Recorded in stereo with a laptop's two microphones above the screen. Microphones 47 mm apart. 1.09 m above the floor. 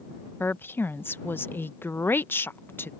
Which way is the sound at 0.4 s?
50° left (ahead or behind).